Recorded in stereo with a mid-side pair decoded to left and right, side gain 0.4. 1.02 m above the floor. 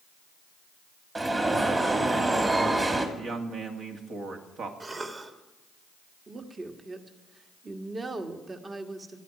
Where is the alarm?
30° right, 2.5 m.